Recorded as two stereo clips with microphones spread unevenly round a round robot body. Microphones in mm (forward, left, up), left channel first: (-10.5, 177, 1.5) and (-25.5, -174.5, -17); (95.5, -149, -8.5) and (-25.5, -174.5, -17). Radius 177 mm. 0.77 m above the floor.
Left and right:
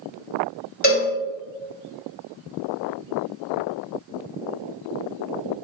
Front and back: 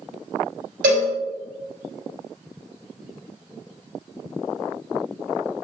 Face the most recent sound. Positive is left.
turn(degrees=155)